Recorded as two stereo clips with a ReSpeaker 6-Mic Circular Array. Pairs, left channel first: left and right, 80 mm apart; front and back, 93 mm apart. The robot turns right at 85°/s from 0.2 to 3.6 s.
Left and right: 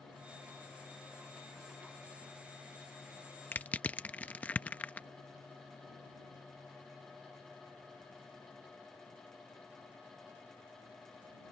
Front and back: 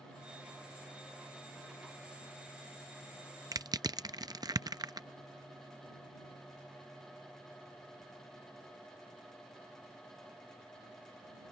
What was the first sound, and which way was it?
Crushing, 150° left.